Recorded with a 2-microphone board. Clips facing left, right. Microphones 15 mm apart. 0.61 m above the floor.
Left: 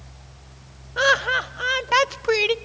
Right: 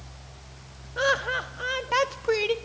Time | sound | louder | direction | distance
1.0 | laughter | left 6 dB | 25° left (ahead or behind) | 0.5 m